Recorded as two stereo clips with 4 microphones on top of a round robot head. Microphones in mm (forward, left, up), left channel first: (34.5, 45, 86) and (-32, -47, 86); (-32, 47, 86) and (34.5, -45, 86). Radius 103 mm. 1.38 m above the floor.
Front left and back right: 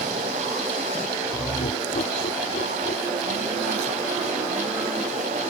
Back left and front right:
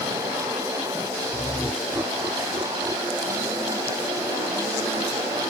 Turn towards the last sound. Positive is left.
turn(degrees=15)